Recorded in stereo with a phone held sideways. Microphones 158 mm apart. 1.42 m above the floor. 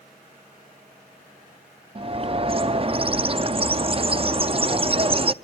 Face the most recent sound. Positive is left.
turn(degrees=-35)  # may be behind; listen again after turning